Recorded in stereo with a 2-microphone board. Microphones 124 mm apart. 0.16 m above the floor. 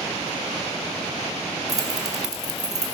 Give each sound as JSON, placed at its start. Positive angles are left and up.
{"t": 1.7, "sound": "keys jangling", "side_deg": -30, "distance_m": 1.8}